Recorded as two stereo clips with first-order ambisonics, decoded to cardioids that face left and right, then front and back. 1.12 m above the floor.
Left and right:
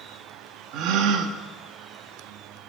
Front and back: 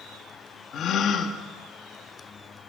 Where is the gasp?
55° right, 1.6 m.